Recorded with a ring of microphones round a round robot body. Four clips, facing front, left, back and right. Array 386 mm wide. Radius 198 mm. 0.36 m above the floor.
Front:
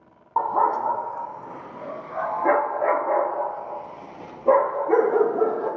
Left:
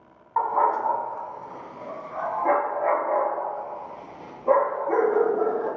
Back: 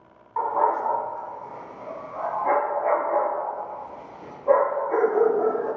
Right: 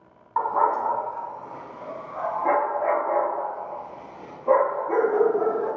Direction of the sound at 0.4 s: 20° right.